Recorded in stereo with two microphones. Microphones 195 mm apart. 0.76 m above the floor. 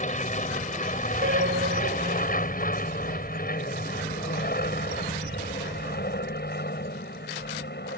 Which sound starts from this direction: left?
An aircraft, at 0.0 s.